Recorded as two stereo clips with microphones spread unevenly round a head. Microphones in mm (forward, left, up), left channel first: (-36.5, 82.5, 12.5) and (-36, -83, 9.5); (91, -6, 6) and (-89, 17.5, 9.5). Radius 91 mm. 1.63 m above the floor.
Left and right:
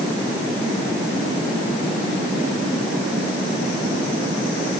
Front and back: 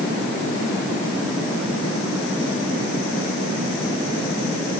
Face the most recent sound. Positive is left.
No sound to turn to.